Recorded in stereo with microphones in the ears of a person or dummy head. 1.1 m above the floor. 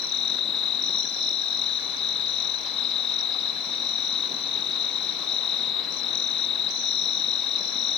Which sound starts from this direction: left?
An insect, at 0.0 s.